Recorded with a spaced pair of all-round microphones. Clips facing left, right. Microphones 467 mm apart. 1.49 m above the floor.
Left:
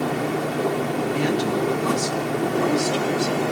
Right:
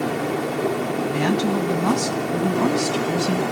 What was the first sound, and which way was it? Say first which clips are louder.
A woman speaking: right 2 dB; 80° right.